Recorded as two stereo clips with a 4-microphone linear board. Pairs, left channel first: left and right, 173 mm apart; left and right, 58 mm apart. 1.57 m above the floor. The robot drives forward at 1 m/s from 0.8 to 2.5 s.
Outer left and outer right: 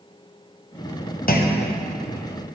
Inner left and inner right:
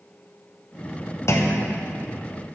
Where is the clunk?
55° left (ahead or behind), 0.9 m; by 1.8 s 60° left (ahead or behind), 0.9 m.